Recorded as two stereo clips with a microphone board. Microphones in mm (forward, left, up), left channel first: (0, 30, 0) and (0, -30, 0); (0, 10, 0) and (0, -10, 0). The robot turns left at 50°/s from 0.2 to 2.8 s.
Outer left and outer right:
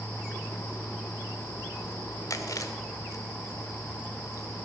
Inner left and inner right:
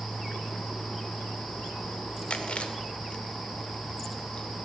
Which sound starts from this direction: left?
Chewing, at 2.3 s.